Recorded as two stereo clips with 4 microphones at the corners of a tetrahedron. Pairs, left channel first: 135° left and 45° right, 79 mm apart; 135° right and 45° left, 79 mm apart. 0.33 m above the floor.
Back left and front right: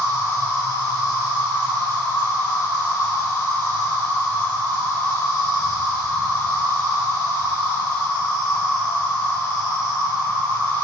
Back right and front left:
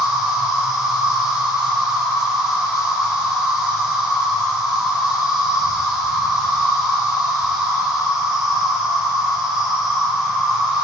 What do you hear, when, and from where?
0.0 s an insect: 125° left, 2 m